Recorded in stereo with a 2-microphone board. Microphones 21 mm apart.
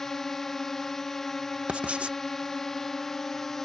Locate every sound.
0.0 s a drone: 20° left (ahead or behind)
1.7 s writing: 70° right (ahead or behind)